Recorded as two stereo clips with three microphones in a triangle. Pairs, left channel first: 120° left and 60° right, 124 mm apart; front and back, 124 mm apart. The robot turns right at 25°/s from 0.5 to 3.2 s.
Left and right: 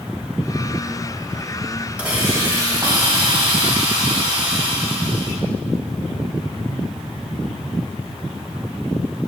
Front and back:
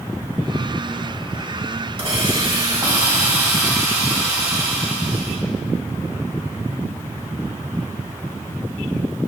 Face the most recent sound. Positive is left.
turn(degrees=-110)